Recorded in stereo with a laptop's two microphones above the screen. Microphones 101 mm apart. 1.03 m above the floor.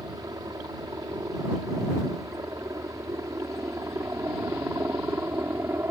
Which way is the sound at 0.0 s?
40° right (ahead or behind).